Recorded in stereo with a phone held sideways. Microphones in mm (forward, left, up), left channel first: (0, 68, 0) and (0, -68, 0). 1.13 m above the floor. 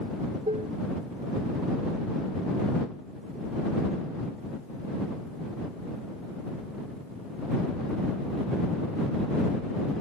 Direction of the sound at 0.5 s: 60° right (ahead or behind).